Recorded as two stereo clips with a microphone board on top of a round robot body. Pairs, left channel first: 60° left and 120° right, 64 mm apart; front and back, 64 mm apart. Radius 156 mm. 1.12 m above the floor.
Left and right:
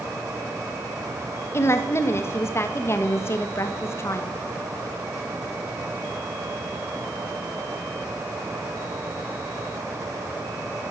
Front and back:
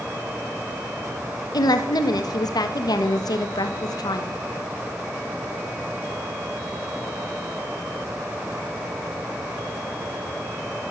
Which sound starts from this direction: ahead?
A woman speaking, at 1.5 s.